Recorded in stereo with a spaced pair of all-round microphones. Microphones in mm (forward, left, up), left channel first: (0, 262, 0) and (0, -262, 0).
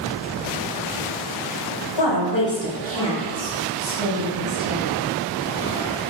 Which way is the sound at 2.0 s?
50° left (ahead or behind).